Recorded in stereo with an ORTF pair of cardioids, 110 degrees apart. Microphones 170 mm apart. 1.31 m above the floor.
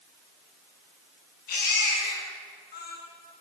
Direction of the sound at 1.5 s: 65° left.